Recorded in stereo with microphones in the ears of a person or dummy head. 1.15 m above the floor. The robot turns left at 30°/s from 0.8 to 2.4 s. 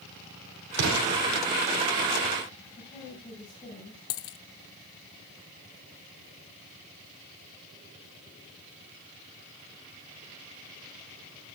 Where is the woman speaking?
25° left (ahead or behind), 7 m.